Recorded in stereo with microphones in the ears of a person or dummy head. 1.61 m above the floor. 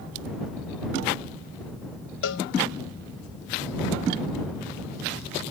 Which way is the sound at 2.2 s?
75° left (ahead or behind).